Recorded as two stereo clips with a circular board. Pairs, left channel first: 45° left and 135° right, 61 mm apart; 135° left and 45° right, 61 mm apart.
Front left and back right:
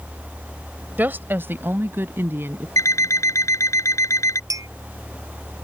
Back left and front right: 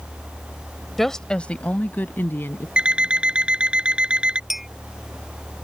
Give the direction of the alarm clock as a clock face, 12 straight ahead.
11 o'clock.